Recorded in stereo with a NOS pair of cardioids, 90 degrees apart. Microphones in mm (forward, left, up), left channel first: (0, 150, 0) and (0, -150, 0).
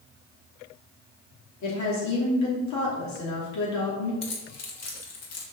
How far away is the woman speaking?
About 3.5 m.